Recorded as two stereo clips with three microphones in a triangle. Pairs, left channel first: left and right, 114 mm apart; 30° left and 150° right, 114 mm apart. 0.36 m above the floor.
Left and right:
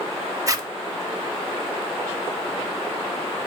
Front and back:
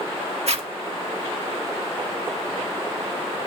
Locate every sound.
0.5 s a zipper: 150° right, 0.7 m